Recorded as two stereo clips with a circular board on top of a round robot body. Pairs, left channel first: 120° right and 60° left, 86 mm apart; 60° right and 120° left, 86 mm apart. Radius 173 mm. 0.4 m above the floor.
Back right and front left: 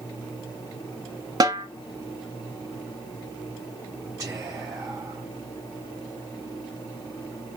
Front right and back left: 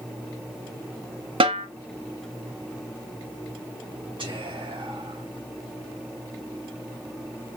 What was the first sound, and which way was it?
A snare drum, 105° left.